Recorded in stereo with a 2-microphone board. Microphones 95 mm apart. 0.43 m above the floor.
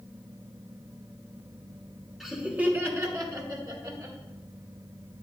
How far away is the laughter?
About 1.3 m.